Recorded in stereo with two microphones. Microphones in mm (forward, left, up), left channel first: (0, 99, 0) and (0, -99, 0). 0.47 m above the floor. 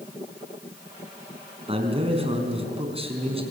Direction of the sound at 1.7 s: 30° right (ahead or behind).